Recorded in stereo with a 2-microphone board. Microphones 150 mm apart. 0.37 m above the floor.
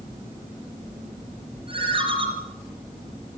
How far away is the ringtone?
About 6.5 m.